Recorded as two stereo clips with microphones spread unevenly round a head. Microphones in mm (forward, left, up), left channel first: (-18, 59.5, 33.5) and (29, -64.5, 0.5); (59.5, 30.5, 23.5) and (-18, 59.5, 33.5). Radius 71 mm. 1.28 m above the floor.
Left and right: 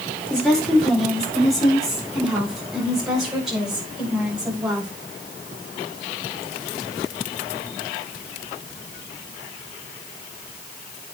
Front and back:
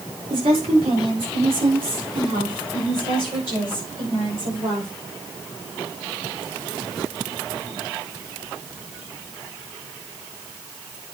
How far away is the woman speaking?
About 4.5 m.